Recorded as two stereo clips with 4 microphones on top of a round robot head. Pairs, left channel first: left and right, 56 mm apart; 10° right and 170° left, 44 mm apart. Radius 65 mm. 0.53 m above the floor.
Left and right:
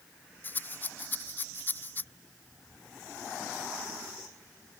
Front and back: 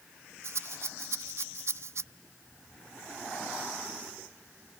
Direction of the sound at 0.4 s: 145° left.